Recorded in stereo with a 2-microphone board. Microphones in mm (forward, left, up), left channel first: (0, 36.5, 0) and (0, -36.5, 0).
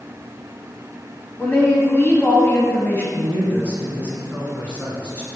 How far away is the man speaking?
About 2.5 m.